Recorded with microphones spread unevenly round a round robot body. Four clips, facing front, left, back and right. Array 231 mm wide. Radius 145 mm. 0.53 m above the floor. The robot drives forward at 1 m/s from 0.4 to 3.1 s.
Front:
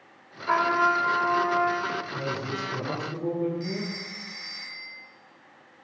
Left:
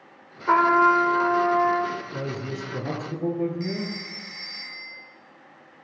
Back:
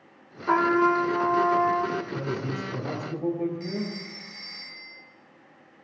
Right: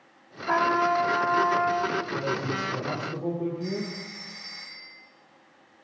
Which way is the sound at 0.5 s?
105° left.